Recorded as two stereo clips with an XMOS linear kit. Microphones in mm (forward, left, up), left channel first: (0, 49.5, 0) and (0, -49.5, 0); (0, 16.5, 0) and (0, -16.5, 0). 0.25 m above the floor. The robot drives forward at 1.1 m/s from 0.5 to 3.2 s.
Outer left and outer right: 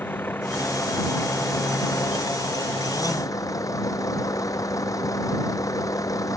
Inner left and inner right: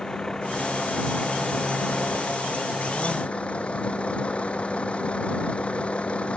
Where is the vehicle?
20° left (ahead or behind); by 6.4 s 35° left (ahead or behind).